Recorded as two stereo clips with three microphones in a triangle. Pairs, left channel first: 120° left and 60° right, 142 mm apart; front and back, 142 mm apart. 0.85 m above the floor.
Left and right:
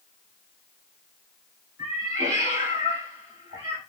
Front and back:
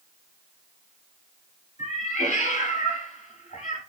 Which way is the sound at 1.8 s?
5° left.